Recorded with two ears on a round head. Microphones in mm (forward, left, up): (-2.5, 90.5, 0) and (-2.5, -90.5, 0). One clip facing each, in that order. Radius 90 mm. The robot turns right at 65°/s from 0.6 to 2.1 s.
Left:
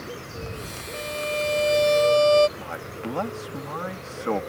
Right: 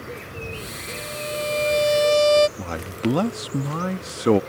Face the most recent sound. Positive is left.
turn(degrees=-50)  # may be behind; listen again after turning